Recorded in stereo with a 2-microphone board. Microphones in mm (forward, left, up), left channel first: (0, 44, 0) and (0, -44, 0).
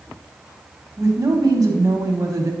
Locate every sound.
1.0 s a woman speaking: 35° right (ahead or behind), 1.2 m